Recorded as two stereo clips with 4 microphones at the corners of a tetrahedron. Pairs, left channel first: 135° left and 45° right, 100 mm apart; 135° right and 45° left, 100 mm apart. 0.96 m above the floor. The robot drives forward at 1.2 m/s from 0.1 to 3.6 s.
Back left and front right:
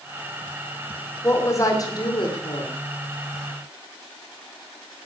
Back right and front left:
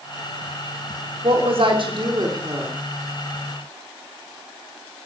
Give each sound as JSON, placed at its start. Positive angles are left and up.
{"t": 1.2, "sound": "a woman speaking", "azimuth_deg": 70, "distance_m": 3.0}